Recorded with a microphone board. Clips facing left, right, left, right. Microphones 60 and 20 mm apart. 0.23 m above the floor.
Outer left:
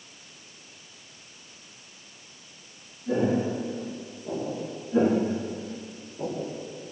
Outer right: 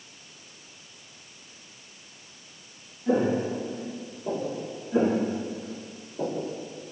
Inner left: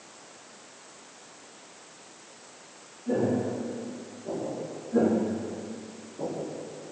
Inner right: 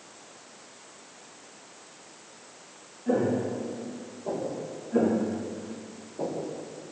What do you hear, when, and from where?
3.1 s footsteps: 75° right (ahead or behind), 9 m; by 4.6 s 80° right, 8.5 m
4.9 s footsteps: 25° right (ahead or behind), 4 m; by 6.6 s 45° right (ahead or behind), 5 m